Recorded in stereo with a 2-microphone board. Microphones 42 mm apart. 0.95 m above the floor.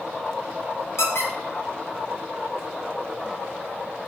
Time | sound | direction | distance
1.0 | a squeak | 80° left | 0.6 m